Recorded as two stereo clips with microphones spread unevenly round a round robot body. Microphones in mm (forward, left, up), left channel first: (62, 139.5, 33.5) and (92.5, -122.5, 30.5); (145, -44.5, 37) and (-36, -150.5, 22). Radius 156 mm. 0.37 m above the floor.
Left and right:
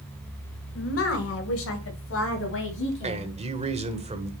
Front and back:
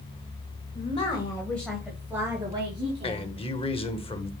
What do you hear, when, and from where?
0.8 s a woman speaking: 85° left, 1.5 m; by 3.3 s 145° left, 3 m
3.0 s a man speaking: 30° right, 1.4 m